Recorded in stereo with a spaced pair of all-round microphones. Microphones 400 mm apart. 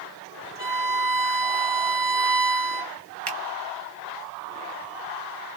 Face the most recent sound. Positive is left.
turn(degrees=-70)  # may be behind; listen again after turning